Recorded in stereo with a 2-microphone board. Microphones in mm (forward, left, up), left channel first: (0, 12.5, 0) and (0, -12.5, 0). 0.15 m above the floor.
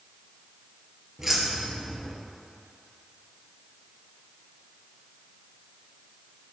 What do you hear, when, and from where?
1.2 s keys jangling: 20° right (ahead or behind), 1.9 m